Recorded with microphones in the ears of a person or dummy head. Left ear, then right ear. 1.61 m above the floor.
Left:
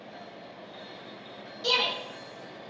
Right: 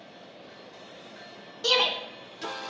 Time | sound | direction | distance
1.6 | a shout | 60° right (ahead or behind) | 1.0 m